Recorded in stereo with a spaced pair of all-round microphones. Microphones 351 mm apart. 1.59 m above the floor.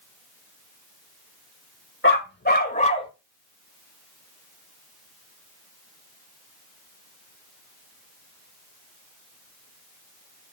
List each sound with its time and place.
2.0 s a dog barking: 35° left (ahead or behind), 1.6 m; by 3.1 s 15° left (ahead or behind), 1.4 m